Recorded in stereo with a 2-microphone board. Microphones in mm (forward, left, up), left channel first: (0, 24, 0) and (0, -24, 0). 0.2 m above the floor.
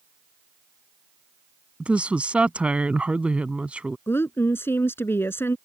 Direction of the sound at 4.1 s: 55° left (ahead or behind).